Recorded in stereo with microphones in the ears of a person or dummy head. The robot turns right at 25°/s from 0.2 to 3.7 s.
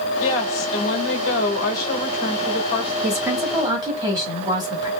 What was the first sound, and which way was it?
A woman speaking, 80° left.